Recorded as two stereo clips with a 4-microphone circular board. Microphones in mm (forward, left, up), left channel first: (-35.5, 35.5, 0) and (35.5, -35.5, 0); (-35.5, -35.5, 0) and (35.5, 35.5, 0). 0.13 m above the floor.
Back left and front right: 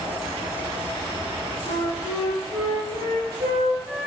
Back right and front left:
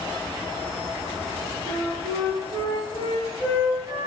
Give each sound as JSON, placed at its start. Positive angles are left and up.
{"t": 1.6, "sound": "a flute", "azimuth_deg": 15, "distance_m": 2.5}